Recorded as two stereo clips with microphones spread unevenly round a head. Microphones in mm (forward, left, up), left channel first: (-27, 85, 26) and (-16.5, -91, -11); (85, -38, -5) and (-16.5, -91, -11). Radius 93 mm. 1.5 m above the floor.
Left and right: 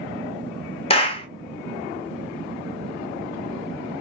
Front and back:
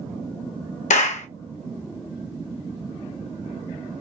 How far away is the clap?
About 0.6 m.